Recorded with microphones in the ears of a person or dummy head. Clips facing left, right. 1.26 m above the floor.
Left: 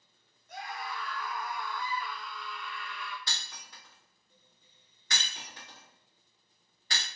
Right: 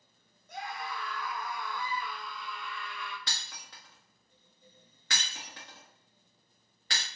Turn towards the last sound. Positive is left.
turn(degrees=-60)  # may be behind; listen again after turning